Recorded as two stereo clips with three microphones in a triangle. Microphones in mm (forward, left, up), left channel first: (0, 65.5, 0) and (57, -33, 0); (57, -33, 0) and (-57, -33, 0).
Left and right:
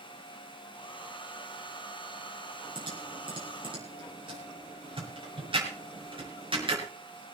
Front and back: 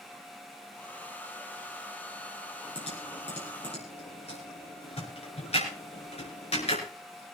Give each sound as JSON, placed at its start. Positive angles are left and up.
{"t": 0.7, "sound": "a hair dryer", "azimuth_deg": 75, "distance_m": 1.5}
{"t": 2.8, "sound": "typing on a keyboard", "azimuth_deg": -20, "distance_m": 5.5}